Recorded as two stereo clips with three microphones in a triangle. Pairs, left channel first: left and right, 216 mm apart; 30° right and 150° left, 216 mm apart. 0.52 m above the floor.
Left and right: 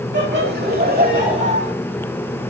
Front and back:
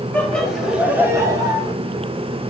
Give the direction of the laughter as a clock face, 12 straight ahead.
4 o'clock.